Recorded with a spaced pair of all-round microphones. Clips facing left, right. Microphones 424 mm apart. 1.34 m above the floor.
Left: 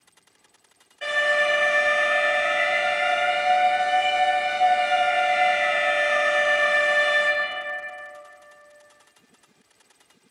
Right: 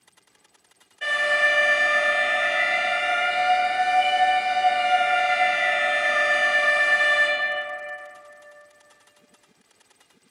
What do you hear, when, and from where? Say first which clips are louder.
1.0 s an alarm: left 3 dB; 15° right (ahead or behind), 1.3 m